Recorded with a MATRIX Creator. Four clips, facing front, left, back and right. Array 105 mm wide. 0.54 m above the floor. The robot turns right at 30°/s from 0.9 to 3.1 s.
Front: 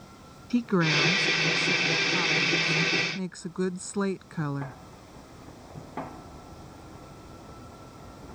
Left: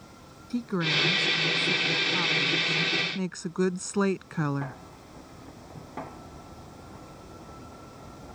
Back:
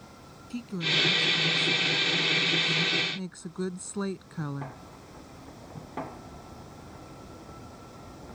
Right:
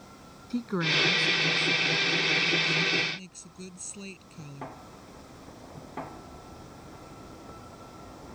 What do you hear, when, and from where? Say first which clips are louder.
0.5 s a woman speaking: left 1 dB, front 9 dB; 5° left; by 4.8 s 70° left